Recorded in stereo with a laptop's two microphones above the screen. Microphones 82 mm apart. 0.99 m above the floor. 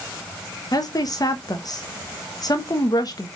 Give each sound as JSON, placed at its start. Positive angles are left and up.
{"t": 0.7, "sound": "a woman speaking", "side_deg": 50, "distance_m": 0.7}